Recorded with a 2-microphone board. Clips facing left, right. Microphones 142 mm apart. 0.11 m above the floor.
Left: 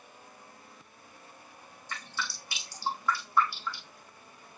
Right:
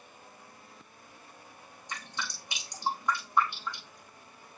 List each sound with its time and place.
1.9 s dripping: 20° right (ahead or behind), 5 m